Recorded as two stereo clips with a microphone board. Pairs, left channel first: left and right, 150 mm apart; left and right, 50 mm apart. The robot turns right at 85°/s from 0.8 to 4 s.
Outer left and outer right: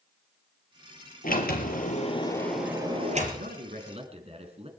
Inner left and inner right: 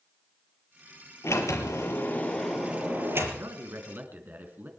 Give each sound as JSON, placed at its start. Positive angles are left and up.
{"t": 1.2, "sound": "a sliding door", "azimuth_deg": 65, "distance_m": 4.0}
{"t": 3.3, "sound": "a man speaking", "azimuth_deg": -100, "distance_m": 4.0}